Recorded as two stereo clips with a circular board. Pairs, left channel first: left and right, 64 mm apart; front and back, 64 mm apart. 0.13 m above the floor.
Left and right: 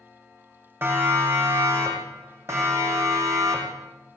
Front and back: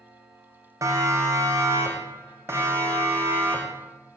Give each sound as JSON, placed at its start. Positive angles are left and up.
{"t": 0.8, "sound": "a siren", "azimuth_deg": -140, "distance_m": 8.0}